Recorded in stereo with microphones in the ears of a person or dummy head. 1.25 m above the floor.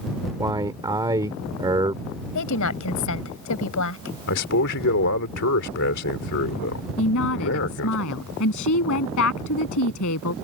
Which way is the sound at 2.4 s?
80° left.